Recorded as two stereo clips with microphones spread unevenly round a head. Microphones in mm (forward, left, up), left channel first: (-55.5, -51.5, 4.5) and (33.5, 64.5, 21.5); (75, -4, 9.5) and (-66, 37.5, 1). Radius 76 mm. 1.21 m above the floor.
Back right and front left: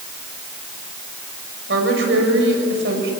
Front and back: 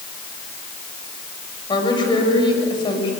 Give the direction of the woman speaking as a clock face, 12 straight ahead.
11 o'clock.